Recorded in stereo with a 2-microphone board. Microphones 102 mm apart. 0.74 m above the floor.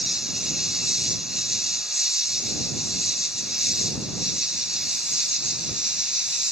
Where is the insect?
5° right (ahead or behind).